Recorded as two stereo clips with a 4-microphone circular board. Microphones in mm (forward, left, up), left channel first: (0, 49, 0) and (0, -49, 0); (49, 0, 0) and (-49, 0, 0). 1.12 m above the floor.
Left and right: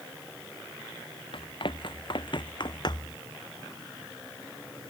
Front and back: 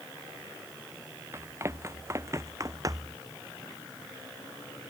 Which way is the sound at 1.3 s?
120° left.